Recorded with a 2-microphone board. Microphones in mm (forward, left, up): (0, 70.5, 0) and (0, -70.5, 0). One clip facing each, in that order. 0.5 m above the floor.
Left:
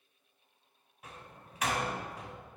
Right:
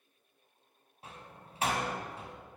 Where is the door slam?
30° right (ahead or behind), 2 m.